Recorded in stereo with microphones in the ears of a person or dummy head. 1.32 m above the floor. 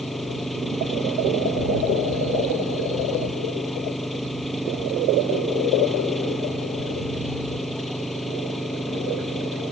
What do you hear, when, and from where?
0.0 s an engine running: 5° left (ahead or behind)